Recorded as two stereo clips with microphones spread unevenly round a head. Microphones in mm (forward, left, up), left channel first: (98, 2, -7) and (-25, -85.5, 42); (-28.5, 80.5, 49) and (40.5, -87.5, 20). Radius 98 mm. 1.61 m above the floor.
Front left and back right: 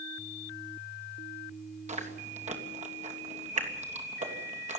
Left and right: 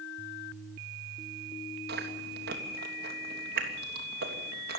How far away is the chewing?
About 3 m.